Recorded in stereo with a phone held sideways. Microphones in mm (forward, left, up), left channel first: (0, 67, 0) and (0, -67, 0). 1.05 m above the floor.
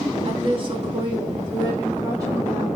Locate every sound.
0.2 s a woman speaking: 45° right (ahead or behind), 2 m; by 2.8 s 20° right (ahead or behind), 4 m